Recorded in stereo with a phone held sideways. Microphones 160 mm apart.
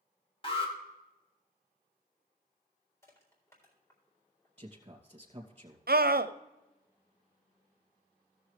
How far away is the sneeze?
No sneeze in this recording.